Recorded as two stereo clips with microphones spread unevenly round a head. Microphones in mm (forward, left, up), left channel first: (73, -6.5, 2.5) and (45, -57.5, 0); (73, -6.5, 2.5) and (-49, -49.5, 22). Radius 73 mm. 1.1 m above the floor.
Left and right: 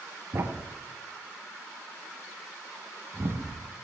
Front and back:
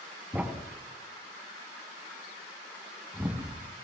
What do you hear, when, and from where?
0.3 s a thud: 95° right, 1.3 m